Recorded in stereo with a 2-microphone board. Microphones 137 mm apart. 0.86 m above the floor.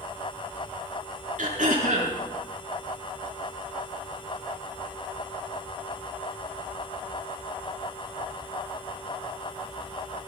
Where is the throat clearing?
65° right (ahead or behind), 5 m.